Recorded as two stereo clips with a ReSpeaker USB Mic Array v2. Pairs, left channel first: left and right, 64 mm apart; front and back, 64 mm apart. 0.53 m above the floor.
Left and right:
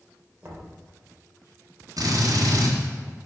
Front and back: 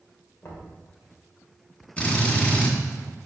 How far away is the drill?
About 2 m.